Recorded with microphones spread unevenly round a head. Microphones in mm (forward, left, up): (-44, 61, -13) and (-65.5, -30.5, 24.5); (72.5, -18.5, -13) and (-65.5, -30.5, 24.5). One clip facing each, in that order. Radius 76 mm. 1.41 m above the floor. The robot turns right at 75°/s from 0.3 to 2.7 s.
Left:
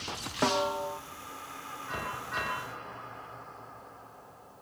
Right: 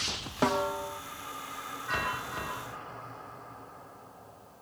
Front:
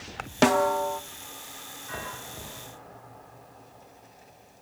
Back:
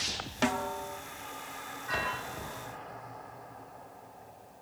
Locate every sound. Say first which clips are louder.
0.4 s a snare drum: even, front 10 dB; 20° right, 0.5 m; by 1.0 s 25° left, 0.5 m